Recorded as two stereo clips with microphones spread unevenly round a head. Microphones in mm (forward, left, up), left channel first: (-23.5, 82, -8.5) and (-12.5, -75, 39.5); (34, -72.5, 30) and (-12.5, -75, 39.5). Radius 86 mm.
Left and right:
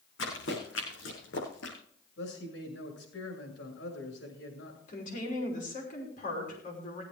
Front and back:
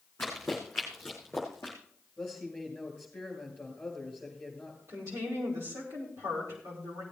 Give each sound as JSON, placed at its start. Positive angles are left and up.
{"t": 0.2, "sound": "running footsteps", "azimuth_deg": 80, "distance_m": 6.0}
{"t": 2.2, "sound": "a man speaking", "azimuth_deg": 80, "distance_m": 6.5}
{"t": 4.9, "sound": "a woman speaking", "azimuth_deg": 135, "distance_m": 5.5}